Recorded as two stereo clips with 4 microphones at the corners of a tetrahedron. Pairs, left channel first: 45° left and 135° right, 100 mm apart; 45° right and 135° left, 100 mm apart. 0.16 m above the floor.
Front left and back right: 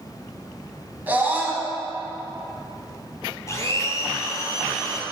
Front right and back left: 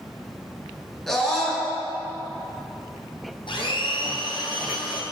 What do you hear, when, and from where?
1.1 s a scream: 125° right, 1.7 m
3.5 s a blender: 15° right, 1.5 m